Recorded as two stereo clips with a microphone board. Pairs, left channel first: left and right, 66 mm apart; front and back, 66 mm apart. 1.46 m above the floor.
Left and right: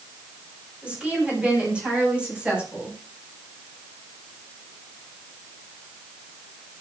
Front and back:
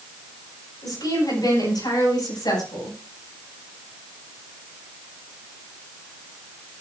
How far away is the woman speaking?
About 9 m.